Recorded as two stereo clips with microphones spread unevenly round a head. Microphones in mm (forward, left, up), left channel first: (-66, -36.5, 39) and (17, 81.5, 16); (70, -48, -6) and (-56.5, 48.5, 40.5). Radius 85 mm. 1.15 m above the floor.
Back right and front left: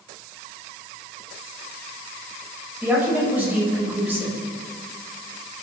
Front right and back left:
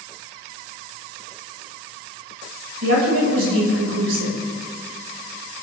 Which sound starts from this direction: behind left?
A woman speaking, at 2.8 s.